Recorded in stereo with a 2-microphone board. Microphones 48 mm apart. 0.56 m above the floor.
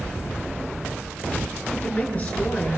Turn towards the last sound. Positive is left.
turn(degrees=30)  # may be behind; listen again after turning